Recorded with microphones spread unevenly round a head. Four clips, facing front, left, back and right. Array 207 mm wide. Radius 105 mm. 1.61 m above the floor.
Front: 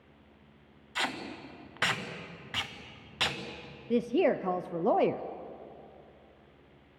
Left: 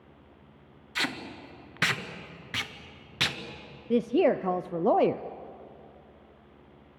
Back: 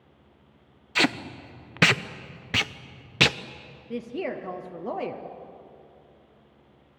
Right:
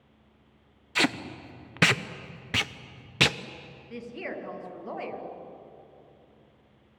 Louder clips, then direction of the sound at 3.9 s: Left 15 dB, front 6 dB; 70° left.